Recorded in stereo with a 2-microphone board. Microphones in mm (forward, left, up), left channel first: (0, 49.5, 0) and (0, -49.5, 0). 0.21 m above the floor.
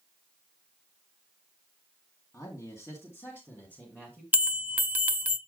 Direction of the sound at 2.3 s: 35° left (ahead or behind).